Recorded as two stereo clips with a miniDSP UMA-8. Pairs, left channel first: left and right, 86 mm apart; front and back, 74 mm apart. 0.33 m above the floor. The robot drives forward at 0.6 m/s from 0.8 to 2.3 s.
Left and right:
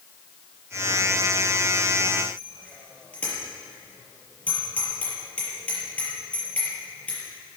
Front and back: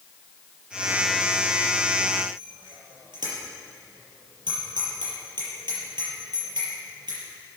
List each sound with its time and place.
2.4 s a bicycle bell: 165° left, 5.5 m